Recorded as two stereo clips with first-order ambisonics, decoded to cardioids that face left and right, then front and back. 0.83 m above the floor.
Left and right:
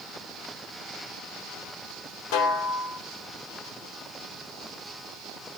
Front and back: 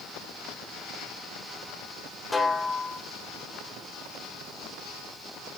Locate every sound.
2.3 s a snare drum: 80° left, 1.4 m